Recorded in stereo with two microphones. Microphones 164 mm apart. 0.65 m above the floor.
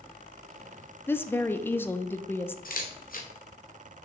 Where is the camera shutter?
60° left (ahead or behind), 1.5 m.